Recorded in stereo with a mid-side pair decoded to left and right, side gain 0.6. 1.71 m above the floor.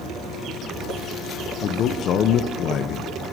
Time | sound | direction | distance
1.6 | a man speaking | 55° left | 1.1 m